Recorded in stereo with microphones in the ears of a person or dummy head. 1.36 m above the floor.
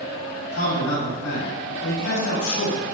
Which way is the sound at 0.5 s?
70° left (ahead or behind).